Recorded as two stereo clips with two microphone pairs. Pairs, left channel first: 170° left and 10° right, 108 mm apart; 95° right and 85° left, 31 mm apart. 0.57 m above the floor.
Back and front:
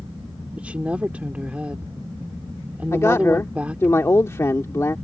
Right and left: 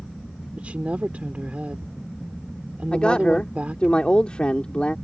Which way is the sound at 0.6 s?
65° left.